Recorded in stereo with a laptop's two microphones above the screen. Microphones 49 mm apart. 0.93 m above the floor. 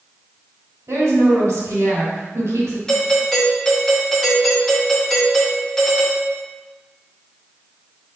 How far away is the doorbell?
About 1.6 m.